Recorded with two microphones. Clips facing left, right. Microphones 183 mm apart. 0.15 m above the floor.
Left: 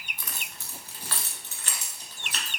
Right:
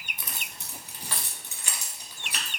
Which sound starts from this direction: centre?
Keys jangling, at 0.2 s.